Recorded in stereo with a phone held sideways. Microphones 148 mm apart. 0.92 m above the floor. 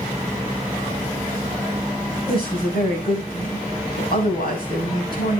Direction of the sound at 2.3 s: 80° left.